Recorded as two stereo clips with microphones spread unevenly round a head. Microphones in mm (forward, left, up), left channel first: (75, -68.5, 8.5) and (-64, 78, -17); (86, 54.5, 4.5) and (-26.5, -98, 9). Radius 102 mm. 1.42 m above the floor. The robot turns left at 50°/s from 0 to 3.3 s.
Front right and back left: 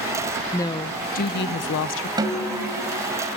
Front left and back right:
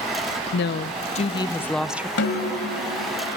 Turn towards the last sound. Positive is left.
turn(degrees=5)